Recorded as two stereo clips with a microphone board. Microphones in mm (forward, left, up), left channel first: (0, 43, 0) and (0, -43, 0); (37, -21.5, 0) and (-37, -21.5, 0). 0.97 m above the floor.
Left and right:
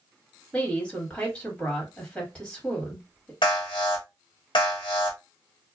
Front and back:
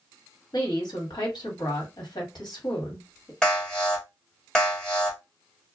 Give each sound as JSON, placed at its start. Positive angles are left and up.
{"t": 0.5, "sound": "a woman speaking", "azimuth_deg": 15, "distance_m": 1.5}
{"t": 3.4, "sound": "an alarm", "azimuth_deg": 80, "distance_m": 1.2}